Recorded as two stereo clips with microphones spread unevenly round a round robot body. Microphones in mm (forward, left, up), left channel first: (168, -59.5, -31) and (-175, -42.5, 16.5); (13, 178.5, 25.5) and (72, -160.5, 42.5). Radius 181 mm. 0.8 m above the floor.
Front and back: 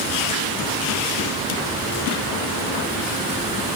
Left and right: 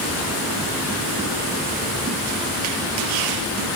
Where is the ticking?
I don't hear ticking.